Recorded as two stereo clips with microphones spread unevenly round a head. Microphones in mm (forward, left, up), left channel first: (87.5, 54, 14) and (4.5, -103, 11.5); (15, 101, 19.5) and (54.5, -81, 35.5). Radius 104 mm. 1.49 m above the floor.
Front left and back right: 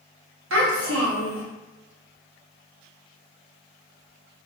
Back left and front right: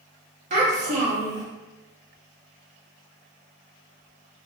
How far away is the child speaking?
About 0.9 m.